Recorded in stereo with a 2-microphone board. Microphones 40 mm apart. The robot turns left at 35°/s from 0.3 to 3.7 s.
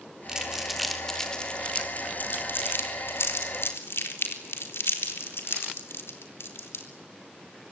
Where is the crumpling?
15° right (ahead or behind), 3.5 m; by 6.8 s 75° left (ahead or behind), 3.5 m.